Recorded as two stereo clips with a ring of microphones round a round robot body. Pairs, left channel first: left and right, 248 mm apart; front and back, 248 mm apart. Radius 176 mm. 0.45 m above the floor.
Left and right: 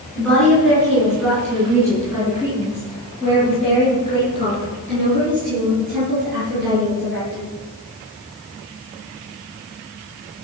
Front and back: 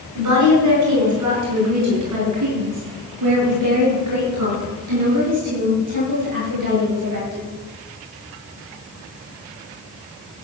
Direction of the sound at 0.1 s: Straight behind.